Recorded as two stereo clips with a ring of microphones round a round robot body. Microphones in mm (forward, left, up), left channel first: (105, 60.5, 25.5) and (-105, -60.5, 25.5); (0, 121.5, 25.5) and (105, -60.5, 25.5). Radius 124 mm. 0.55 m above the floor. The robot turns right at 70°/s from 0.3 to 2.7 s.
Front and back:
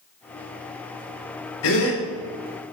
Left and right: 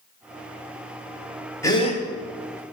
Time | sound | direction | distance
1.6 | a gasp | 45° left | 2.5 m